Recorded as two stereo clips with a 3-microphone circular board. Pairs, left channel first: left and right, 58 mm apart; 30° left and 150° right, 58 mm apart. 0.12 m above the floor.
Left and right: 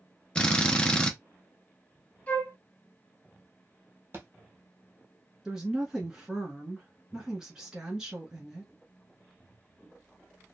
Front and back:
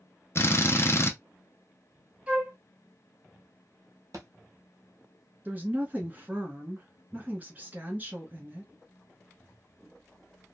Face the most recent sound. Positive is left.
turn(degrees=-155)